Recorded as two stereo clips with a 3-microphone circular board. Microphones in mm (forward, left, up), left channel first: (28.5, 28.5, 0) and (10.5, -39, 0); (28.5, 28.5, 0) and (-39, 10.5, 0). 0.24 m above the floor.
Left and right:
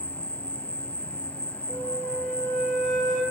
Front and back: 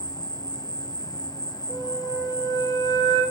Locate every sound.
0.0 s an insect: 5° left, 0.7 m
1.7 s a flute: 25° right, 4 m